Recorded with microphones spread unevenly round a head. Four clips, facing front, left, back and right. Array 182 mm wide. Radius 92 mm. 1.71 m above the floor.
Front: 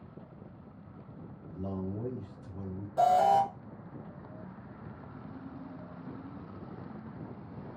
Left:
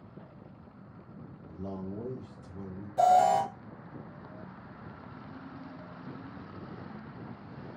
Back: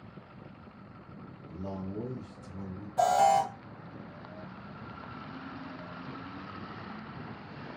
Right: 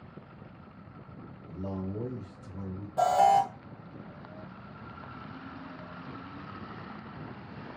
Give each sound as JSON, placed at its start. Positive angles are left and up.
{"t": 1.5, "sound": "a man speaking", "azimuth_deg": -80, "distance_m": 2.5}
{"t": 3.0, "sound": "an alarm", "azimuth_deg": -30, "distance_m": 1.6}